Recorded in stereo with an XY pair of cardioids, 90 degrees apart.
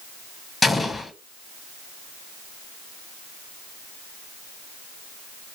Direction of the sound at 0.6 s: 25° left.